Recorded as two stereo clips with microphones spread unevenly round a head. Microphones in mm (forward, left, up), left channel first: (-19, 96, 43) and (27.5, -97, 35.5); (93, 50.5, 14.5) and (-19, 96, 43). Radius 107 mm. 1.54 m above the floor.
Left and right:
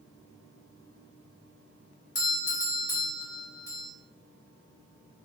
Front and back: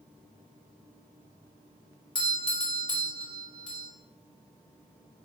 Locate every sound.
2.1 s a doorbell: 30° left, 4 m